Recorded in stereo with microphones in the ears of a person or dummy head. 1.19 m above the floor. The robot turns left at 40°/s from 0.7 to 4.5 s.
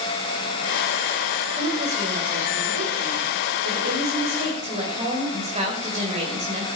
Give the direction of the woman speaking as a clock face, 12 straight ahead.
1 o'clock.